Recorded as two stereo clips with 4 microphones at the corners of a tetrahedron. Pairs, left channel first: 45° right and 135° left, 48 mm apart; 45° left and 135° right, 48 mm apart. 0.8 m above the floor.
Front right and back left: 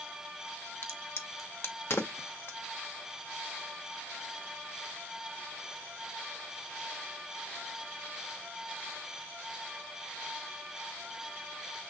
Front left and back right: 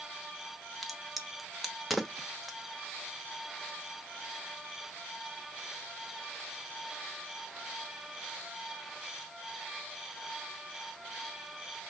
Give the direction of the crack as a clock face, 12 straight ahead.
2 o'clock.